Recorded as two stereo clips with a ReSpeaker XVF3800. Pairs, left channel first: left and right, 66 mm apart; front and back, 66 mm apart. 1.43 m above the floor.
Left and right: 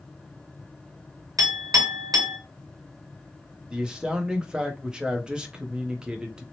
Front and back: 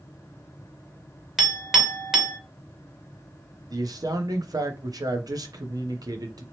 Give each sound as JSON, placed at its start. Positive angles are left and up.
{"t": 1.4, "sound": "a clink", "azimuth_deg": -95, "distance_m": 0.8}
{"t": 3.7, "sound": "a man speaking", "azimuth_deg": -165, "distance_m": 0.6}